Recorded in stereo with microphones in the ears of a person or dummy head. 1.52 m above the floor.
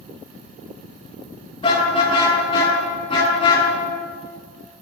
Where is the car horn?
30° left (ahead or behind), 10 m.